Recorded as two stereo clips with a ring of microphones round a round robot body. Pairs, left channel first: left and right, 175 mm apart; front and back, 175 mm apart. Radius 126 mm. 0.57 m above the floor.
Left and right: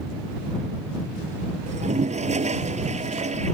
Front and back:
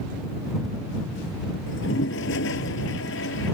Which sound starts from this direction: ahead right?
A toilet flushing, at 1.7 s.